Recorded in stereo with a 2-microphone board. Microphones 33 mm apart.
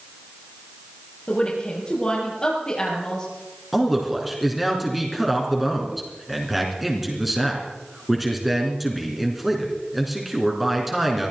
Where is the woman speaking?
25° left (ahead or behind), 7.5 m; by 3.3 s 20° left (ahead or behind), 7.5 m.